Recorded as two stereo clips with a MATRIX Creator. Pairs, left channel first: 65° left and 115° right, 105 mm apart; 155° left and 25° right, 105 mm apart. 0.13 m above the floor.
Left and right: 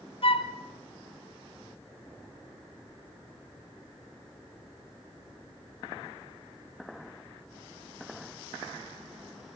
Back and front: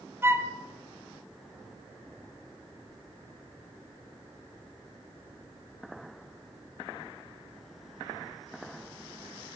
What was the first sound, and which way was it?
A flute, 45° left.